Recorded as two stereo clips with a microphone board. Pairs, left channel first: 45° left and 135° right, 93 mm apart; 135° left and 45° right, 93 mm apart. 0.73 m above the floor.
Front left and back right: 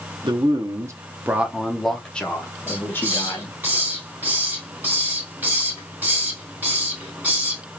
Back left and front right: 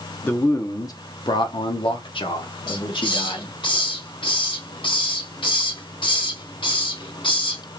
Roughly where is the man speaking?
Behind.